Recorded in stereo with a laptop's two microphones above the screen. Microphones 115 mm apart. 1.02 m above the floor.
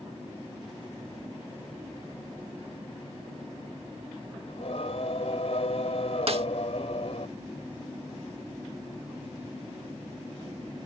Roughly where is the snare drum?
Right.